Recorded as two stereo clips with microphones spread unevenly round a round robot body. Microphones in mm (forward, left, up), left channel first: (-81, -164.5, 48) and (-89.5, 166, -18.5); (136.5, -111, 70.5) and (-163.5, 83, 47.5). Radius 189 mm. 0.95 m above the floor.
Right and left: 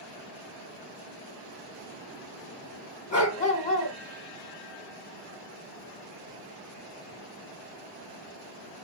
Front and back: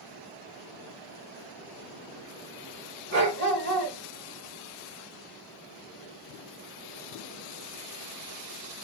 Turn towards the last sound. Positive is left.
turn(degrees=-155)